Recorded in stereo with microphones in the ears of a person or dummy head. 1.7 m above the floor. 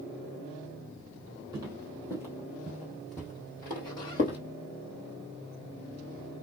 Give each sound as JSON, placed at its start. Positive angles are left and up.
{"t": 1.5, "sound": "footsteps", "side_deg": -15, "distance_m": 2.5}